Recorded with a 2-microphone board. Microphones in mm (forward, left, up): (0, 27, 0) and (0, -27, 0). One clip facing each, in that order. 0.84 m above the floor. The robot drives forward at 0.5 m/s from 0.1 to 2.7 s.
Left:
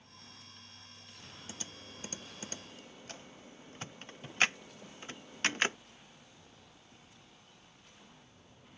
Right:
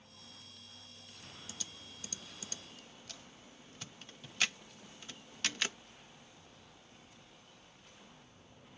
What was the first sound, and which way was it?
Typing on a keyboard, 30° left (ahead or behind).